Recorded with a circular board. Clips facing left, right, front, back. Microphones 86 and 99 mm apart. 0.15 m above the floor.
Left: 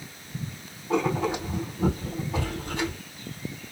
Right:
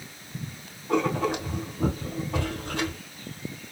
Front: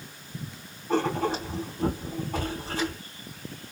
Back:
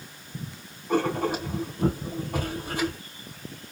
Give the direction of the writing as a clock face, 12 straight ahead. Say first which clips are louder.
Even, back 1 dB; 3 o'clock.